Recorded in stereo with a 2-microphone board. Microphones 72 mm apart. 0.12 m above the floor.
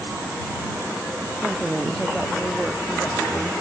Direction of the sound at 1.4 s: 5° right (ahead or behind).